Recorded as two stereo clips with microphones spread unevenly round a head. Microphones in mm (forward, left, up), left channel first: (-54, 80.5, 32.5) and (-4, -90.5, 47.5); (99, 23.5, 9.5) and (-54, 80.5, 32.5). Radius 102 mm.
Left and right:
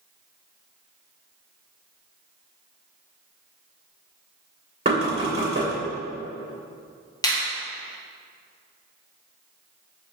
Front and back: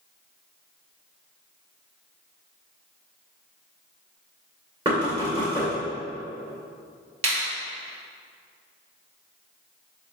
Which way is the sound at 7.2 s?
175° left.